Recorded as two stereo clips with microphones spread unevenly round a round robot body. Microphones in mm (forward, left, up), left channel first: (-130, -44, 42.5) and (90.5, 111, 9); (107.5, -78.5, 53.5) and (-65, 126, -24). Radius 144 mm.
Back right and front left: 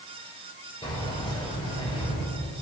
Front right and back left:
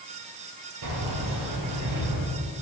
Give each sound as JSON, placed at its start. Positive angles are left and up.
{"t": 0.8, "sound": "keys jangling", "azimuth_deg": 140, "distance_m": 5.0}